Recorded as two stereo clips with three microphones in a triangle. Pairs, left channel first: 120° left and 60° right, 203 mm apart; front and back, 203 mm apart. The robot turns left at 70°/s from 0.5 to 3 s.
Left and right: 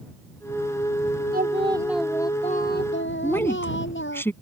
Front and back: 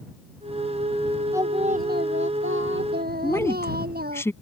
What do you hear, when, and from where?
1.3 s singing: 105° right; by 4.2 s 140° left
3.2 s a woman speaking: 60° left